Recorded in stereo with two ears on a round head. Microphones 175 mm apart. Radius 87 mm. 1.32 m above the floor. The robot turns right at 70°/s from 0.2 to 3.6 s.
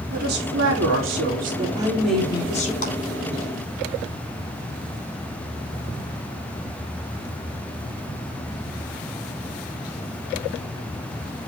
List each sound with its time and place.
0.1 s a woman speaking: 130° right, 4 m; by 2.7 s 45° left, 4 m
2.8 s a clap: 40° left (ahead or behind), 6 m; by 2.9 s 35° left (ahead or behind), 6 m